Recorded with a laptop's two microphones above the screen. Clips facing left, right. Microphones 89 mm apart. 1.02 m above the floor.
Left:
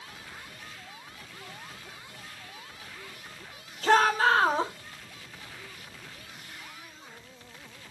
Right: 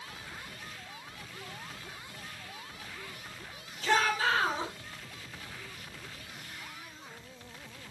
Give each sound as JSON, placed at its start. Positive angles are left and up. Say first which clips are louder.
{"t": 3.8, "sound": "a shout", "louder": "left 6 dB", "side_deg": 60, "distance_m": 3.0}